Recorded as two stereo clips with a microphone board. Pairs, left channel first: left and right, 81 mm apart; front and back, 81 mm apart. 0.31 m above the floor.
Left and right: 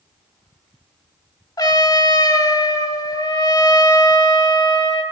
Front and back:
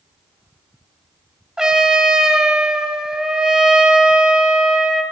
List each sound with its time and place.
1.6 s a trumpet: 100° left, 1.4 m